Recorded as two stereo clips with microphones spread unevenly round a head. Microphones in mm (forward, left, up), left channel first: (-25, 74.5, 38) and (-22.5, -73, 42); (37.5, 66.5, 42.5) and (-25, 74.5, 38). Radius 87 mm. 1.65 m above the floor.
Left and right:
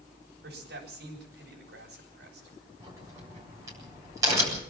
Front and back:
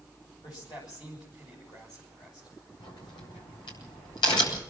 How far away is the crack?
About 8 m.